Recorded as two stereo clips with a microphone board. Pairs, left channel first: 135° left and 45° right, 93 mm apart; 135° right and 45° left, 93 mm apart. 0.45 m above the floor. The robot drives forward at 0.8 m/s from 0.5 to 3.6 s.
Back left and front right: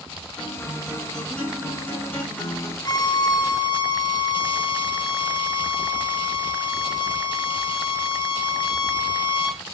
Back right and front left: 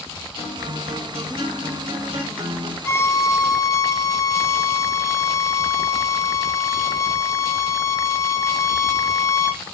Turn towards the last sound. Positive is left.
turn(degrees=170)